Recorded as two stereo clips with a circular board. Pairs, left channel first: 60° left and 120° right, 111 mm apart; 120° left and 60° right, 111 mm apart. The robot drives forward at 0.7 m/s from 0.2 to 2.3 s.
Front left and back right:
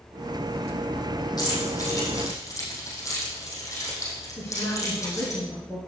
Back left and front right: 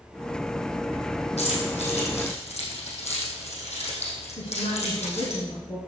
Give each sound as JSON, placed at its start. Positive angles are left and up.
{"t": 1.4, "sound": "keys jangling", "azimuth_deg": 110, "distance_m": 4.0}
{"t": 4.4, "sound": "a woman speaking", "azimuth_deg": 120, "distance_m": 2.5}